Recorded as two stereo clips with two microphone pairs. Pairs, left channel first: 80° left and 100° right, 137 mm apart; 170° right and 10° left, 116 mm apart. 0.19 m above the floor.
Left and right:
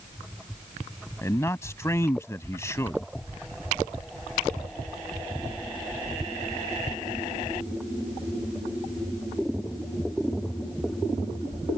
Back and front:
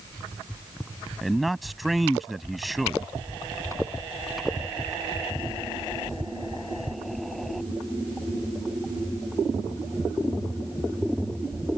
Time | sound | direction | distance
1.2 | a man speaking | 95° left | ?